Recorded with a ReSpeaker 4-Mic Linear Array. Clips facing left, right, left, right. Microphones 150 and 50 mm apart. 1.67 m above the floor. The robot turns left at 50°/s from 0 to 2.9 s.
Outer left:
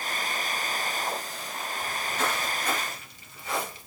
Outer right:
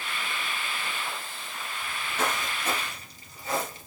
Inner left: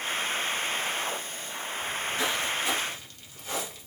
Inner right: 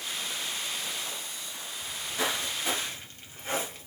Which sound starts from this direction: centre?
Footsteps, at 1.8 s.